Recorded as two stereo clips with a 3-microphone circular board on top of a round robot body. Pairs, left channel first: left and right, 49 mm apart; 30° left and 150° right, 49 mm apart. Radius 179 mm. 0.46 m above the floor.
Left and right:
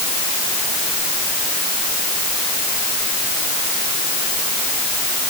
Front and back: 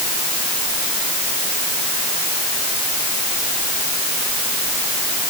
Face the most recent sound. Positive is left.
No sound to turn to.